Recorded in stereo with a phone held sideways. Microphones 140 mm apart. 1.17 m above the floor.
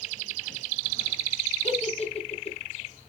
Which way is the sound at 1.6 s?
45° left (ahead or behind).